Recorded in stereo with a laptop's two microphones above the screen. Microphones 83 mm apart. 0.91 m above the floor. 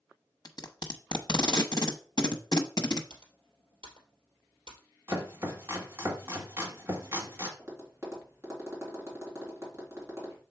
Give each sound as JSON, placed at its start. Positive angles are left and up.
{"t": 0.5, "sound": "tape being pulled", "side_deg": 55, "distance_m": 0.8}
{"t": 3.1, "sound": "typing on a keyboard", "side_deg": -85, "distance_m": 2.5}
{"t": 5.1, "sound": "chopping", "side_deg": -30, "distance_m": 1.8}
{"t": 7.6, "sound": "tapping", "side_deg": -30, "distance_m": 2.5}